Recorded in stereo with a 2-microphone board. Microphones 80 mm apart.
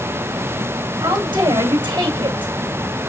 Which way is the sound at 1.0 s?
80° right.